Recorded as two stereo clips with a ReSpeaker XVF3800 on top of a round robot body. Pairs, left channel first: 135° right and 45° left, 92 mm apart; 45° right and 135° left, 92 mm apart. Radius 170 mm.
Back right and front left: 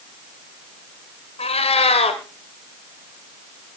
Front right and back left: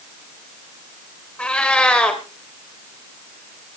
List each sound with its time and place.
1.4 s a cat meowing: 125° right, 1.9 m